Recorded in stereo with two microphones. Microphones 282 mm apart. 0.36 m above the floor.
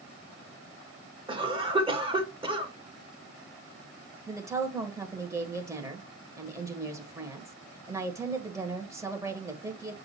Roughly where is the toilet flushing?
I don't hear a toilet flushing.